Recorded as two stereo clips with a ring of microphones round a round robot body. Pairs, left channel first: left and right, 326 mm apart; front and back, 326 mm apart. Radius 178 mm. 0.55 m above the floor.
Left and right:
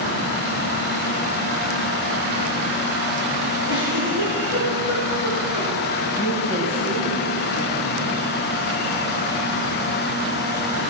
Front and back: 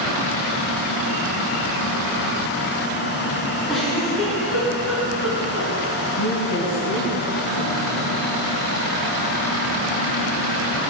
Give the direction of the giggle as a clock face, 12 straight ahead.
9 o'clock.